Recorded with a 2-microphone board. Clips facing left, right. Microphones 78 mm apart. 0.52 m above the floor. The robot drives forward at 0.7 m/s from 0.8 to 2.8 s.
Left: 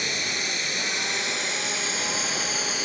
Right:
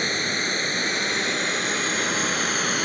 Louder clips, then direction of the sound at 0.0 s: Right 4 dB; 45° right (ahead or behind).